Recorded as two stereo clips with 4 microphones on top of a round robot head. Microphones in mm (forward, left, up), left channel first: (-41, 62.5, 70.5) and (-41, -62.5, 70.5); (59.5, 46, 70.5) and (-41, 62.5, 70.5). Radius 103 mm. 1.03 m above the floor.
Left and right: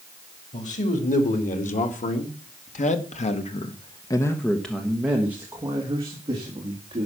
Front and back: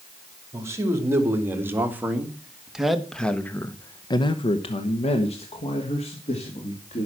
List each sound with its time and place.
0.5 s a man speaking: 110° left, 3 m; by 7.1 s 35° right, 2.5 m